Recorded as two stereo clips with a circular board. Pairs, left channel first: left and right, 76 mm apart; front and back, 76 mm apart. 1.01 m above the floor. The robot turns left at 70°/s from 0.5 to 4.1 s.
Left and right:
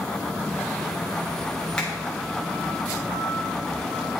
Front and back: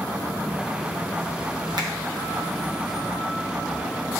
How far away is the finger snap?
About 1.1 m.